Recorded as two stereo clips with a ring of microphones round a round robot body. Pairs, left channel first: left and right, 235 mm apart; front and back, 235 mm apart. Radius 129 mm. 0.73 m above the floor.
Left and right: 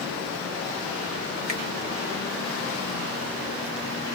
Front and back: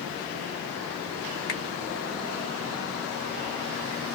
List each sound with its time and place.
1.5 s a finger snap: 30° right, 1.9 m